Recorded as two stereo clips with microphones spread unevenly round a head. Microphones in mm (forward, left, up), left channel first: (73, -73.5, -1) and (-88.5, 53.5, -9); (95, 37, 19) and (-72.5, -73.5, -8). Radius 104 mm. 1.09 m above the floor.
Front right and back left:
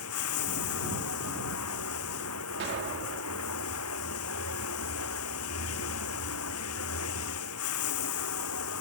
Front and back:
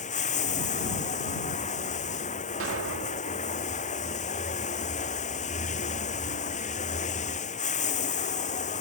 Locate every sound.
0.0 s running water: 20° right
2.6 s an explosion: straight behind